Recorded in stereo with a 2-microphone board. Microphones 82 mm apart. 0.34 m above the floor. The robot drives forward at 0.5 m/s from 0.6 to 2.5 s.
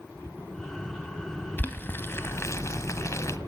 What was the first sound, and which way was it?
Boiling, 20° left (ahead or behind).